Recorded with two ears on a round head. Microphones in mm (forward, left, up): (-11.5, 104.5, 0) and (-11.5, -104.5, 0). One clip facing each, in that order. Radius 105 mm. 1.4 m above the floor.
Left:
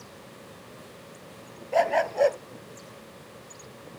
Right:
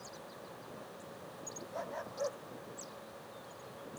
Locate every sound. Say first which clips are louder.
1.7 s a dog barking: left 19 dB; 80° left